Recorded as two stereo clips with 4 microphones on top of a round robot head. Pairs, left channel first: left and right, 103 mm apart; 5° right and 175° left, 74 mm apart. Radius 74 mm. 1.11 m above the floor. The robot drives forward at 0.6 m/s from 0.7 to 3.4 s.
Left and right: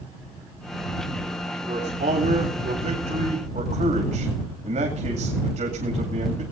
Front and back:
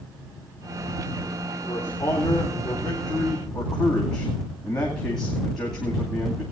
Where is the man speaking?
65° right, 2.5 m; by 6.4 s 85° right, 2.5 m.